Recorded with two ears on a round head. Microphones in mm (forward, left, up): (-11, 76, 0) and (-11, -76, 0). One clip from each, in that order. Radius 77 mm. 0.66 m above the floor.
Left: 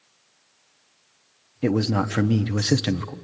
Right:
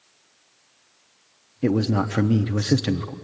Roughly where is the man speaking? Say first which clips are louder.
Even; left.